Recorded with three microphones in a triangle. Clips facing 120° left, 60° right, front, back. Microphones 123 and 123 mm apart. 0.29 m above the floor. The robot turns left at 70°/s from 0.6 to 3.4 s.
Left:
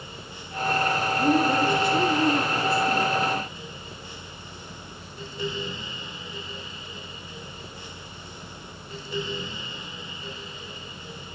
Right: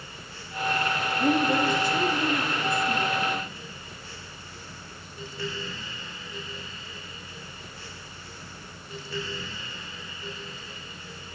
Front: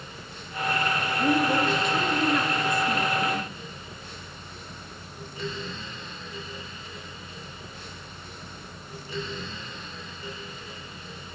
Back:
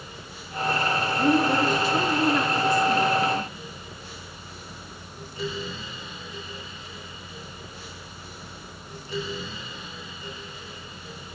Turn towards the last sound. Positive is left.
turn(degrees=20)